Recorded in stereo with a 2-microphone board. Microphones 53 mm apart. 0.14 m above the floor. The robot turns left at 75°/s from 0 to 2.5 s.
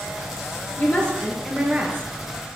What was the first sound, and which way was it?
A woman speaking, 45° left.